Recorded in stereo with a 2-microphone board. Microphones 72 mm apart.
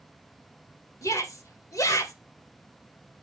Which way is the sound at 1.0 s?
50° left (ahead or behind).